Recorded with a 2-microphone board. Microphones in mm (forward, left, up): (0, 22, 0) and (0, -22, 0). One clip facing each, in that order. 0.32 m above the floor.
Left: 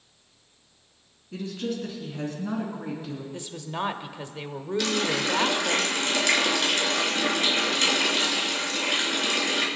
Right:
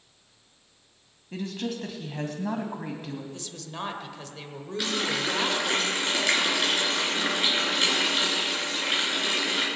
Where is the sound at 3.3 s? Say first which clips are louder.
Left 5 dB; 20° left (ahead or behind), 1.0 m.